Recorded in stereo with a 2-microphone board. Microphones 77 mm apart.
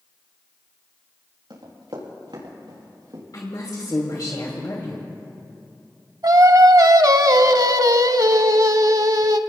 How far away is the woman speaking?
About 2.5 m.